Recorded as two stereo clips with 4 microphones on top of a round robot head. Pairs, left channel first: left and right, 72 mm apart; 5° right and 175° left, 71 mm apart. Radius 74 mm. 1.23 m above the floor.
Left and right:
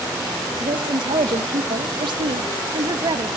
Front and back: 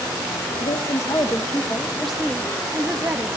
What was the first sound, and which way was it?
A woman speaking, 50° right.